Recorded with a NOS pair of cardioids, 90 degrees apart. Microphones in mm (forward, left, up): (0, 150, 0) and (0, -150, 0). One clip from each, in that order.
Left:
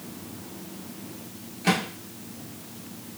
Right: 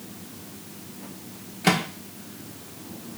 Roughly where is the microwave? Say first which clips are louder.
Right 2 dB; ahead right.